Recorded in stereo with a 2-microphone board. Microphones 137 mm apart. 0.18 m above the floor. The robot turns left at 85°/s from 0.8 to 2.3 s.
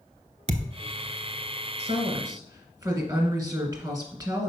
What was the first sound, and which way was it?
A thud, 60° right (ahead or behind).